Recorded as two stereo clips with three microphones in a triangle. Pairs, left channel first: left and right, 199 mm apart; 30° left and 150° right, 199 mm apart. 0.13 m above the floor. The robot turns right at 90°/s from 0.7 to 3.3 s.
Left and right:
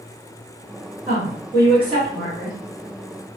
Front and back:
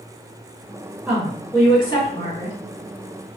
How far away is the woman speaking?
About 2.0 m.